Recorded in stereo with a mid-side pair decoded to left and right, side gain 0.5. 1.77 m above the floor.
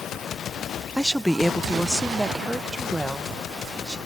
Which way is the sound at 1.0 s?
5° left.